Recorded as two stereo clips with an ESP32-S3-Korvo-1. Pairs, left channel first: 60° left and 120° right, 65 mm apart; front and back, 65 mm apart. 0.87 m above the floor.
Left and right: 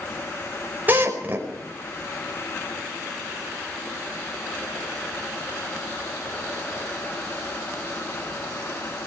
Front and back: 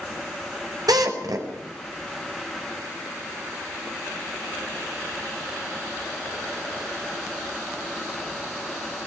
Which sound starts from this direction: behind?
A drill, at 0.9 s.